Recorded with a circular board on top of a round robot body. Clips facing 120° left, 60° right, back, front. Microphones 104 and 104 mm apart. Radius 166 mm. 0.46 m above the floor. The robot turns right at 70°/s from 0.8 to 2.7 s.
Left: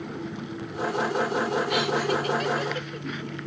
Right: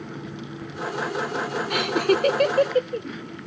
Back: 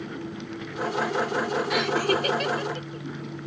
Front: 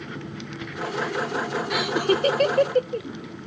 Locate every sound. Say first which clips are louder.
1.7 s laughter: right 3 dB, front 3 dB; 95° right; by 3.1 s 25° right